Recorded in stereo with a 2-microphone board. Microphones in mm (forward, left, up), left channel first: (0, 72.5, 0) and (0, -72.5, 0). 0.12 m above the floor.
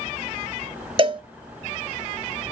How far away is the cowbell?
About 0.6 m.